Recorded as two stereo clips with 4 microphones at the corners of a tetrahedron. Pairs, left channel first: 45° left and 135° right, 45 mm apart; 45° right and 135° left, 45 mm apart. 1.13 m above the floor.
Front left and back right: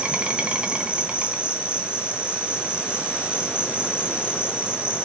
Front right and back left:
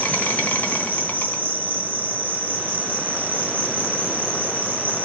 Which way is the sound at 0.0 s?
75° right.